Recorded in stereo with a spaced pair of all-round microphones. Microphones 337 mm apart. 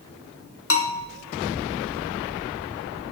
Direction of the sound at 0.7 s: 45° left (ahead or behind).